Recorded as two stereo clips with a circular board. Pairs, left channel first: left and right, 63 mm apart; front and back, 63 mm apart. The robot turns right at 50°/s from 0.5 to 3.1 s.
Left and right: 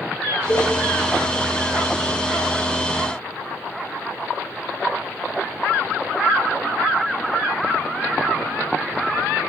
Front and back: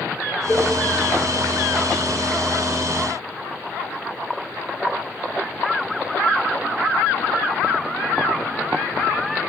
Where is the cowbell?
95° left, 0.7 m; by 0.7 s 105° left, 0.7 m.